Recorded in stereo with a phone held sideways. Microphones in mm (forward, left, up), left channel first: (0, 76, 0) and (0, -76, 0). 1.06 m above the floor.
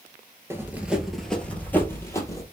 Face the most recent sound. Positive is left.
turn(degrees=20)  # may be behind; listen again after turning